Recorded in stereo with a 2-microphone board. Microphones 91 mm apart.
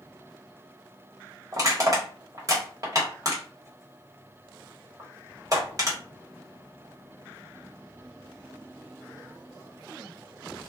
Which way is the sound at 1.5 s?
40° right (ahead or behind).